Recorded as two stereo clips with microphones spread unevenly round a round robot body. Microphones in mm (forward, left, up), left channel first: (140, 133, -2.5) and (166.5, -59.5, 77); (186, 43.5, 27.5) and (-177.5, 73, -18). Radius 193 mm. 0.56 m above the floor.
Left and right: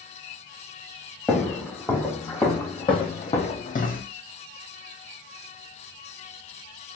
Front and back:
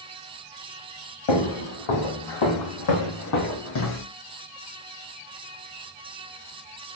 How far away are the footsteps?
About 2.5 m.